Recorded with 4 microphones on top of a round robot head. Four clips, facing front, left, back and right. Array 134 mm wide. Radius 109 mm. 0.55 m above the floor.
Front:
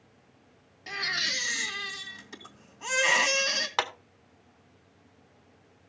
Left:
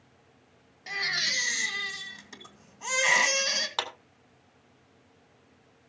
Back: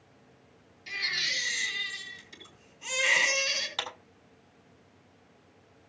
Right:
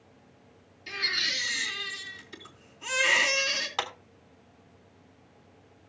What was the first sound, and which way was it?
A baby crying, 45° left.